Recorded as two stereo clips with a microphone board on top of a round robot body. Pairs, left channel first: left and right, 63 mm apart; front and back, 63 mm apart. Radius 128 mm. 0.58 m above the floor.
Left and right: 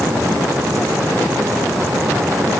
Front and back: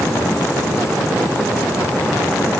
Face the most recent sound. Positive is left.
No sound to turn to.